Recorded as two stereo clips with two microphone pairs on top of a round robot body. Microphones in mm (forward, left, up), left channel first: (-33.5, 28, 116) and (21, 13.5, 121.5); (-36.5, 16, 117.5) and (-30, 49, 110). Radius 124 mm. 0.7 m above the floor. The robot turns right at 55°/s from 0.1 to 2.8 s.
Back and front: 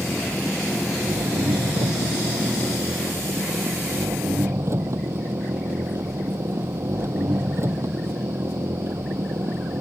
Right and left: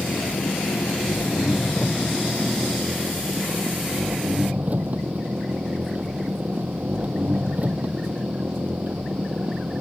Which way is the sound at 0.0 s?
120° right.